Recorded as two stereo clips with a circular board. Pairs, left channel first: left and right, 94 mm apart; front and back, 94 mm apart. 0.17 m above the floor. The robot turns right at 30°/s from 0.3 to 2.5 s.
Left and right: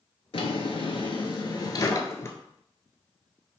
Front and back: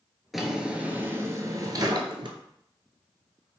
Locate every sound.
0.3 s a drawer: 90° left, 0.6 m; by 2.4 s 150° left, 0.6 m